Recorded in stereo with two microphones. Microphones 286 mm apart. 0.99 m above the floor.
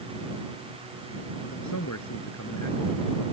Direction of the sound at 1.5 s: 80° left.